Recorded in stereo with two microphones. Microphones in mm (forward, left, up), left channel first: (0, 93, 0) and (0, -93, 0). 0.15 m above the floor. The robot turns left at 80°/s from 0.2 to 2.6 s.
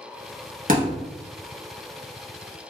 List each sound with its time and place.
0.7 s a thud: 45° right (ahead or behind), 1.0 m; by 1.1 s 20° right (ahead or behind), 1.0 m